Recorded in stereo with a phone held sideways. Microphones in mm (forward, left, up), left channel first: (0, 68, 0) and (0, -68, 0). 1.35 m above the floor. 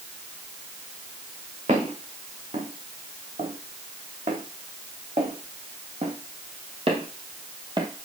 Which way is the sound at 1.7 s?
65° right (ahead or behind).